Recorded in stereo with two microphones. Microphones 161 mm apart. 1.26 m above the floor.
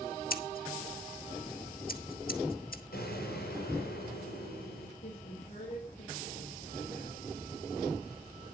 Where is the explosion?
75° left (ahead or behind), 7.5 m.